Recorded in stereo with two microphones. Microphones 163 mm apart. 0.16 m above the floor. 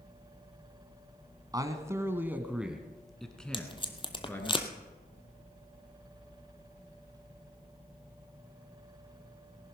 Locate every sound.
1.5 s a man speaking: 25° right (ahead or behind), 1.3 m; by 4.5 s 15° left (ahead or behind), 2 m
3.5 s tape being pulled: 30° left (ahead or behind), 1.1 m